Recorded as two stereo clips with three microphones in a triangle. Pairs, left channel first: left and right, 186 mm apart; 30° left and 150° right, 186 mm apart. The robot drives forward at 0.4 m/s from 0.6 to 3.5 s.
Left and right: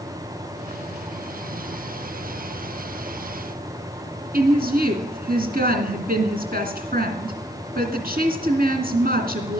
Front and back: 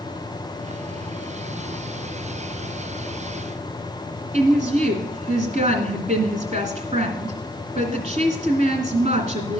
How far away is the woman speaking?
About 2.5 m.